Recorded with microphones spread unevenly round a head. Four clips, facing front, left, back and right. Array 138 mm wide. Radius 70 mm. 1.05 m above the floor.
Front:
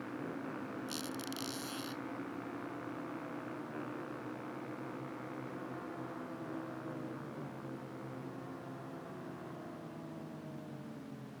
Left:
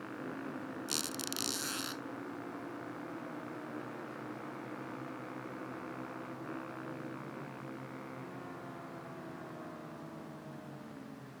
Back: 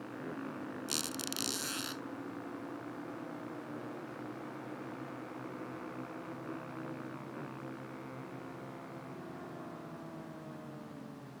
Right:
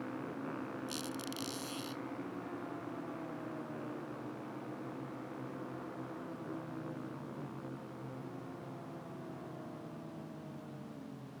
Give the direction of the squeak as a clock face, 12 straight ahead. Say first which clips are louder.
Even, even; 9 o'clock.